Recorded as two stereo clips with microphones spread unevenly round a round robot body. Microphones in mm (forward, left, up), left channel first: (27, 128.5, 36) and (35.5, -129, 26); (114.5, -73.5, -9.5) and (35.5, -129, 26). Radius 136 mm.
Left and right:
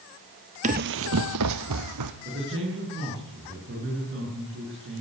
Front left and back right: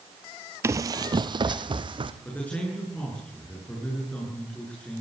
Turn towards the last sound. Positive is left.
turn(degrees=-40)